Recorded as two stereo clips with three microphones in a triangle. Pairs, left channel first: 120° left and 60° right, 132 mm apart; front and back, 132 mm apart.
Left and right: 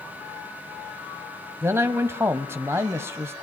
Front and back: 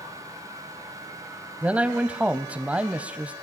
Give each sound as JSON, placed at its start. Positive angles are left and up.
{"t": 1.6, "sound": "a man speaking", "azimuth_deg": -110, "distance_m": 1.1}